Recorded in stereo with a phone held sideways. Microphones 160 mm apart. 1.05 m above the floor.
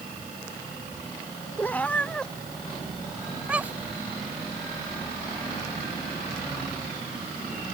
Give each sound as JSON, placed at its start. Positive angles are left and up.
{"t": 1.6, "sound": "a cat meowing", "side_deg": 10}